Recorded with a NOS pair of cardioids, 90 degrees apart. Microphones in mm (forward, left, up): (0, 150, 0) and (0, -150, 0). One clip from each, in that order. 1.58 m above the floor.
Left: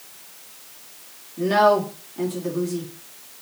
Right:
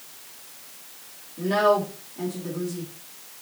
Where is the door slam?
No door slam in this recording.